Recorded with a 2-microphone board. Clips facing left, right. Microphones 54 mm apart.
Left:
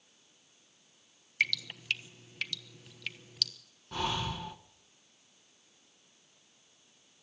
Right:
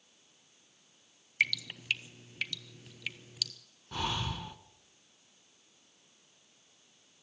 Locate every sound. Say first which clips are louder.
1.4 s dripping: right 1 dB; 5° right (ahead or behind), 1.1 m
3.9 s breathing: left 1 dB; 5° left (ahead or behind), 1.0 m